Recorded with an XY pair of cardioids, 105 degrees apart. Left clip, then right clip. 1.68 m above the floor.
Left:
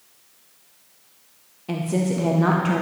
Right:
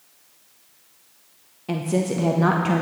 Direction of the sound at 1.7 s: 15° right.